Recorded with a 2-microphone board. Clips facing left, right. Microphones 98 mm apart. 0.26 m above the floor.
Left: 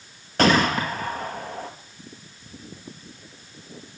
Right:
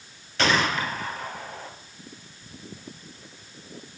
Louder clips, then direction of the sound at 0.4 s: Left 4 dB; 45° left (ahead or behind).